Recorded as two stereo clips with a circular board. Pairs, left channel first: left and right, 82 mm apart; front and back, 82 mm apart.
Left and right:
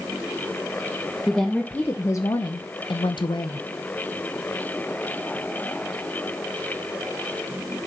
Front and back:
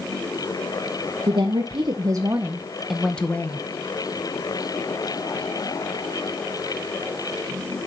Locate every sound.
1.3 s a woman speaking: 175° left, 1.0 m; by 3.7 s 65° left, 1.0 m